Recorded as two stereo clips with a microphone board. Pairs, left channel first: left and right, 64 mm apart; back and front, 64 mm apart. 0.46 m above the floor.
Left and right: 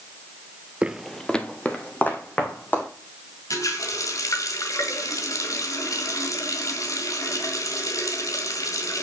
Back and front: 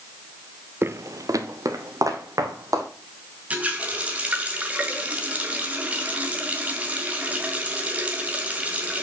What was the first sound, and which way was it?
Footsteps, 30° right.